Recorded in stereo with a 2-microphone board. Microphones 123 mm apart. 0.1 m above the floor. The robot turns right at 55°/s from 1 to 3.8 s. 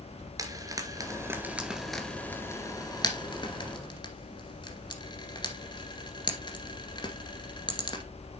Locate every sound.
0.4 s frying: 25° right (ahead or behind), 2.0 m; by 8.0 s 35° left (ahead or behind), 2.0 m